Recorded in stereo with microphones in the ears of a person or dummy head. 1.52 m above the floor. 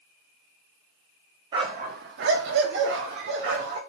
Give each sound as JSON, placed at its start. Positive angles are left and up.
{"t": 1.5, "sound": "a dog barking", "side_deg": -20, "distance_m": 1.1}